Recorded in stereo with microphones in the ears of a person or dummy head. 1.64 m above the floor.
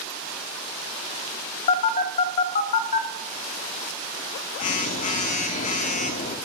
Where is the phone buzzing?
45° left (ahead or behind), 0.5 m.